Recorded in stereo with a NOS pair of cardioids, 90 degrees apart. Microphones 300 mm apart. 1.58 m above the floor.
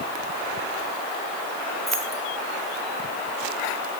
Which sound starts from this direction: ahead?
Keys jangling, at 1.9 s.